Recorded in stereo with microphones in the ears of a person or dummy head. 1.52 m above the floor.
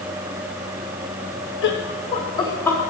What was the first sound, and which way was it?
Laughter, 65° left (ahead or behind).